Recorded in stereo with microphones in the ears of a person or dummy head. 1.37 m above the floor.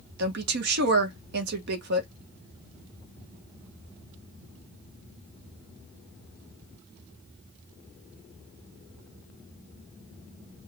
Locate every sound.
0.2 s a woman speaking: 70° right (ahead or behind), 1.4 m